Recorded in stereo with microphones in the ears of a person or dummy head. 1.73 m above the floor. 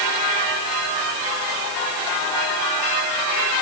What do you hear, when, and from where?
Only background noise.